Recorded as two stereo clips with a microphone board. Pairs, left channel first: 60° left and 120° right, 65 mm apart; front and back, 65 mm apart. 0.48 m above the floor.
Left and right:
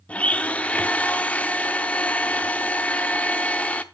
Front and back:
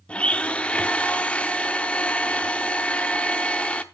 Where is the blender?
35° left, 0.7 m.